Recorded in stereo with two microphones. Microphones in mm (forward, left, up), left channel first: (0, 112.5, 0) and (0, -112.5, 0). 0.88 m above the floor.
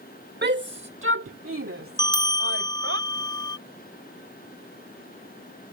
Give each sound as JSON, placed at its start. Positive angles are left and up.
{"t": 0.4, "sound": "a shout", "side_deg": -50}
{"t": 2.0, "sound": "a bell", "side_deg": 20}